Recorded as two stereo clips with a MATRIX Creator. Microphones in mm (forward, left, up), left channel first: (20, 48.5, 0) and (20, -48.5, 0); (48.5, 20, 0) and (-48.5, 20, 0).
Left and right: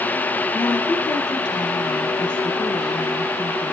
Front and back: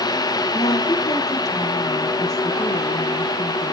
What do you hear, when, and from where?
0.5 s a woman speaking: 50° left, 3.5 m